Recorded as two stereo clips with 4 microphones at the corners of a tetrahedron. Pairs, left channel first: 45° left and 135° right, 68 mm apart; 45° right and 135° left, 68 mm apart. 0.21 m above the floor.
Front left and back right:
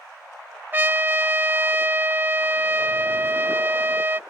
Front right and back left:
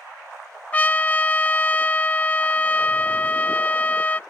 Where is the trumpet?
95° right.